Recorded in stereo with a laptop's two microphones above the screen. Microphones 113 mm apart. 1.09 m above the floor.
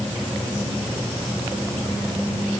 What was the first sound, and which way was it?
Only background noise.